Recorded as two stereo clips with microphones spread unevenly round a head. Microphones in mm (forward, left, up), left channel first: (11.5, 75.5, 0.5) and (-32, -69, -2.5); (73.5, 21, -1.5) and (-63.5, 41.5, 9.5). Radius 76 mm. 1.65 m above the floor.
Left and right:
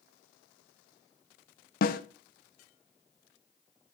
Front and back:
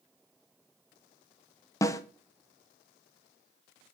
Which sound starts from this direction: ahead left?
A snare drum, at 1.8 s.